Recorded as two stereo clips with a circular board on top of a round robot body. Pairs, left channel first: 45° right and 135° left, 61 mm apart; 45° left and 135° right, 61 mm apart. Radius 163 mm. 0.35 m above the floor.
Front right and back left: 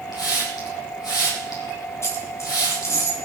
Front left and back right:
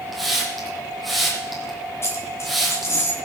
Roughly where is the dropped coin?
Ahead.